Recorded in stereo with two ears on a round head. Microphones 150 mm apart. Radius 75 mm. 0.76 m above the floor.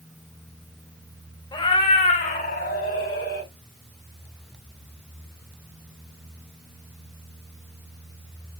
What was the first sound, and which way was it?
A cat meowing, 25° left (ahead or behind).